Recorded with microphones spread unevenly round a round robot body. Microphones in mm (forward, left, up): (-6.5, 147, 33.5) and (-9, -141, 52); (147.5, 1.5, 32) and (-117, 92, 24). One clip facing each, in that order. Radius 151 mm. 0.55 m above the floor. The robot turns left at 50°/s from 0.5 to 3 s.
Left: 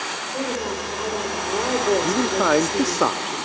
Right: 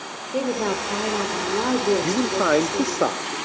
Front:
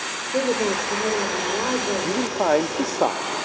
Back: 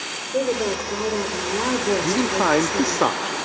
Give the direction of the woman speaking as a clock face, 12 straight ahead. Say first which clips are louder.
Right 3 dB, even; 3 o'clock.